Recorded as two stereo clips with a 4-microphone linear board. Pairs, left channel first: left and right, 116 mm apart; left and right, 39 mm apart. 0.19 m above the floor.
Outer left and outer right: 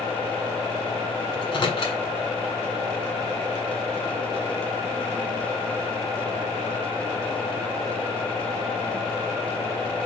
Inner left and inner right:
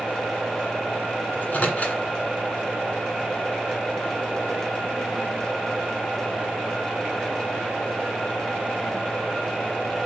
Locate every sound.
1.3 s a microwave: 45° left (ahead or behind), 1.6 m